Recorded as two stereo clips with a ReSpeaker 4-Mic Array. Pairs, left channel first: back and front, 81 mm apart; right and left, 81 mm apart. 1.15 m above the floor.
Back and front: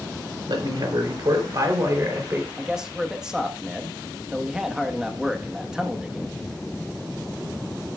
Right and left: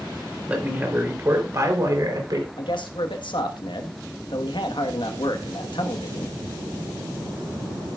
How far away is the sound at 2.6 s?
About 1.6 m.